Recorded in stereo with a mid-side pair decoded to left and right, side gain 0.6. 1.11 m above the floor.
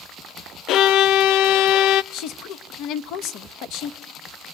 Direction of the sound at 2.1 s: 65° left.